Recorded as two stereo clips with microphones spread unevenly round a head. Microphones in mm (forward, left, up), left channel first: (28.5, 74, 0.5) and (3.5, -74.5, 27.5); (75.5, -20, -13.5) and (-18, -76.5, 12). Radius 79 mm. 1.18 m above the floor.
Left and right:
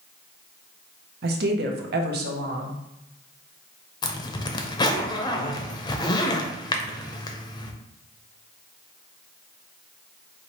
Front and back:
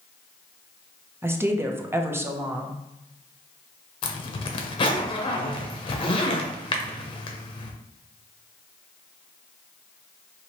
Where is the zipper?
30° left, 0.7 m.